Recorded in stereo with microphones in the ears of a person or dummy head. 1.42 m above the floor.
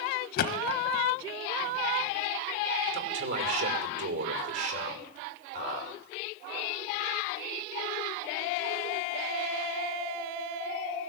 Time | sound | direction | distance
0.4 | a thud | 55° left (ahead or behind) | 1.7 m
2.9 | a man speaking | 70° right (ahead or behind) | 6 m